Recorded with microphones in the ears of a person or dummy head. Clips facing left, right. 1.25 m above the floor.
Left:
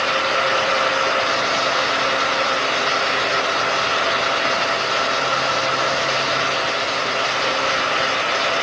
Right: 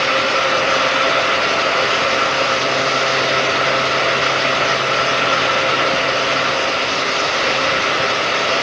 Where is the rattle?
No rattle in this recording.